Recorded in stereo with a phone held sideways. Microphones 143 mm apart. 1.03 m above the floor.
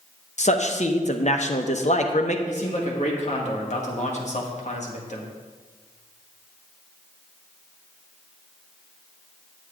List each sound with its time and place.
0.4 s a man speaking: 50° left (ahead or behind), 0.9 m
2.5 s a man speaking: 55° left (ahead or behind), 1.8 m